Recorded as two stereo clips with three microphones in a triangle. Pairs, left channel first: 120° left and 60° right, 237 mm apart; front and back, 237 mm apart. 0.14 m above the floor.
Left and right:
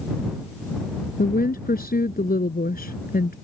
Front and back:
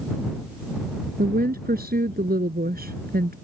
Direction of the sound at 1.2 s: 150° left.